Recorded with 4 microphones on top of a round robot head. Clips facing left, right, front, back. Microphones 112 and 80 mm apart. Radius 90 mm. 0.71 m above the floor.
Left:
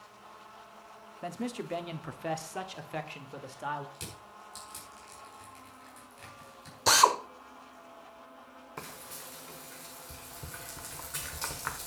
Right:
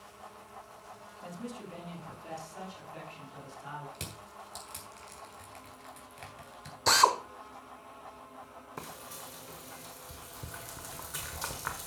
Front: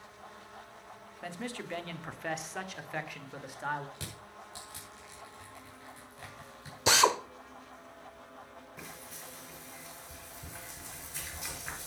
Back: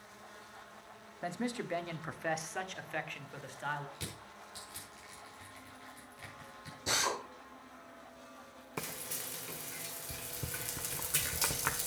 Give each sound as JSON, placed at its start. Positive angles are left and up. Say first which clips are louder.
{"t": 1.2, "sound": "a man speaking", "louder": "left 6 dB, back 3 dB", "azimuth_deg": 115, "distance_m": 1.4}
{"t": 4.0, "sound": "crushing", "louder": "right 1 dB, front 1 dB", "azimuth_deg": -65, "distance_m": 3.0}
{"t": 6.9, "sound": "a drill", "louder": "left 1 dB, front 10 dB", "azimuth_deg": 5, "distance_m": 1.1}
{"t": 8.8, "sound": "frying", "louder": "right 1 dB, back 7 dB", "azimuth_deg": -175, "distance_m": 1.1}